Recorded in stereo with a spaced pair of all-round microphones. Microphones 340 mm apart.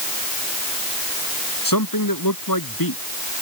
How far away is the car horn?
No car horn in this recording.